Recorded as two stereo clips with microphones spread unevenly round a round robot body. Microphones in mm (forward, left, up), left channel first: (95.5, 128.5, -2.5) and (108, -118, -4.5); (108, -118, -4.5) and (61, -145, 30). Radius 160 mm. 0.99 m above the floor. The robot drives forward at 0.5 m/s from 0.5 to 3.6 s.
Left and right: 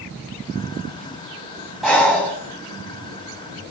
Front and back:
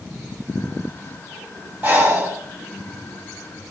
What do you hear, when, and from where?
1.8 s breathing: 175° right, 1.4 m; by 3.7 s straight behind, 2 m